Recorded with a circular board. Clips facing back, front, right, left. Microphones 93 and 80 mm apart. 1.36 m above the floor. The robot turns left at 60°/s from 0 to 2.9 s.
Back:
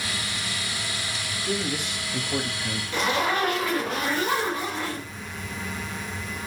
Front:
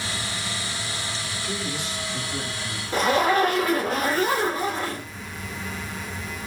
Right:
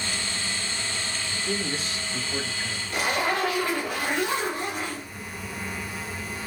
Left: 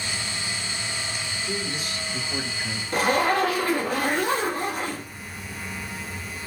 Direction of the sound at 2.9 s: 45° left.